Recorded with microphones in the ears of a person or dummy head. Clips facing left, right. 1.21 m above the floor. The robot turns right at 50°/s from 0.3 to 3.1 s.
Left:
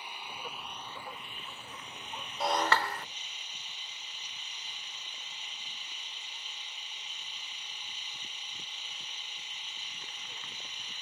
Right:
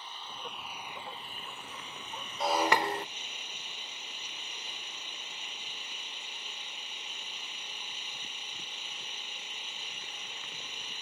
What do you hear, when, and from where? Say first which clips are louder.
0.0 s an engine running: left 1 dB; 170° left; by 11.0 s 50° right
2.4 s breaking glass: right 2 dB; 175° right; by 3.0 s 145° right